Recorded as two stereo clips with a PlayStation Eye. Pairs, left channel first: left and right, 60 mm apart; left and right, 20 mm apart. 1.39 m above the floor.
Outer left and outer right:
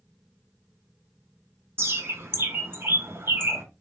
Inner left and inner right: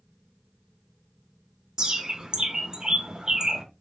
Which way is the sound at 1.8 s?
40° right (ahead or behind).